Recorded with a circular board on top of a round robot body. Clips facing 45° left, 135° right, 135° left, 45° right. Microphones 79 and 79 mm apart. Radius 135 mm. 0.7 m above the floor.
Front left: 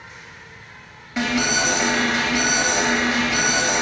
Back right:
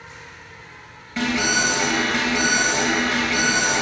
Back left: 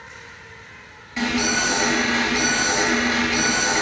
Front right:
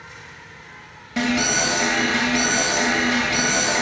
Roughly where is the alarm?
Ahead right.